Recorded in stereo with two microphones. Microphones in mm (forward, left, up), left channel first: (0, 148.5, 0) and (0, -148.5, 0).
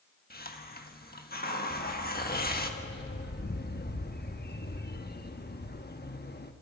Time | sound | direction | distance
0.3 | a hiss | 30° left (ahead or behind) | 1.4 m
1.7 | a dog barking | 30° left (ahead or behind) | 1.0 m